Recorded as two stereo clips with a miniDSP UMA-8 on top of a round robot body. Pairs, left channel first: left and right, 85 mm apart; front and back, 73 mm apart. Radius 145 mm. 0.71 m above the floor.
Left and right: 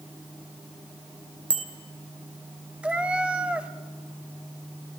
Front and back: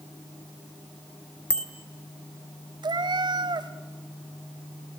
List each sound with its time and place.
1.5 s a bicycle bell: 80° right, 3 m
2.8 s a cat meowing: 170° right, 1.0 m